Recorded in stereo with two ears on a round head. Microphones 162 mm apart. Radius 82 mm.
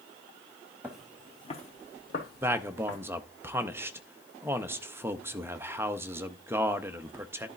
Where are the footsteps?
10° right (ahead or behind), 1.1 m; by 3.0 s 70° left (ahead or behind), 2.5 m.